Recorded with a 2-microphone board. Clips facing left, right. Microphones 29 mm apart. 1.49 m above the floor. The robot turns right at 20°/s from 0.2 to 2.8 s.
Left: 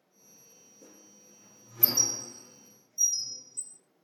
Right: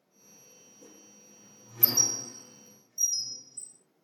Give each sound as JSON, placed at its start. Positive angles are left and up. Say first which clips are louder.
{"t": 0.8, "sound": "a squeak", "louder": "right 1 dB", "side_deg": 0, "distance_m": 2.5}